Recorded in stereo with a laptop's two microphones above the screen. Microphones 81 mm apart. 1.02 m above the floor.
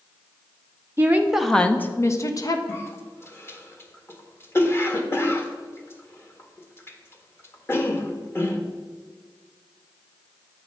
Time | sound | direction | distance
1.0 | a woman speaking | 30° right (ahead or behind) | 0.6 m
2.7 | a cough | 30° left (ahead or behind) | 1.6 m